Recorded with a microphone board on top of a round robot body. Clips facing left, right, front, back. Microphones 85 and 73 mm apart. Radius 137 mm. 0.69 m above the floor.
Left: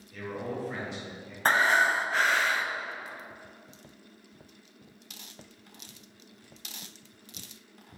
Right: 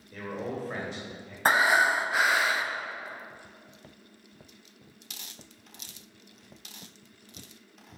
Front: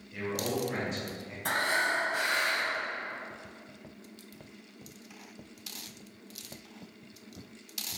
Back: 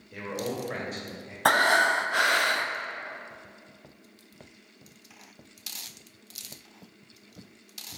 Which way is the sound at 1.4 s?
170° right.